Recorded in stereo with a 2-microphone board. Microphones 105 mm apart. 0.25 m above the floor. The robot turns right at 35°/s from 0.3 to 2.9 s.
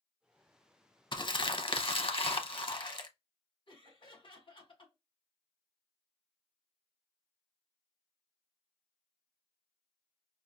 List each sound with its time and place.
1.1 s crumpling: 55° left, 0.6 m; by 3.1 s 120° left, 0.6 m
3.7 s laughter: 55° left (ahead or behind), 1.8 m